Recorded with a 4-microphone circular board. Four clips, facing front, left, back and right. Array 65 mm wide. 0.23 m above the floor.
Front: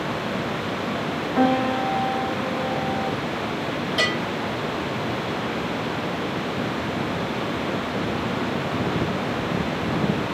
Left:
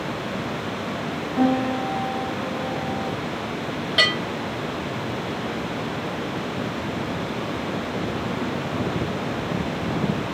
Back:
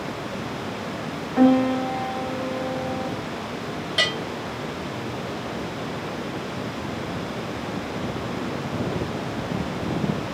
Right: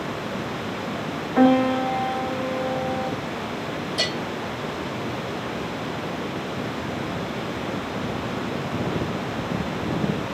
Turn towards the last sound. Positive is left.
turn(degrees=100)